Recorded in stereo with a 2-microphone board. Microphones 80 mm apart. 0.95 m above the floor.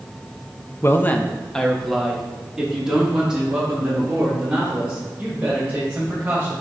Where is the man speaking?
30° left (ahead or behind), 0.6 m; by 6.5 s 15° right (ahead or behind), 5 m.